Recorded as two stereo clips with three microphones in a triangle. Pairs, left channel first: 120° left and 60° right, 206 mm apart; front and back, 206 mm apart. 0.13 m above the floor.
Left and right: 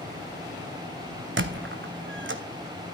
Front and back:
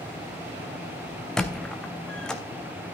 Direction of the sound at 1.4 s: 85° right.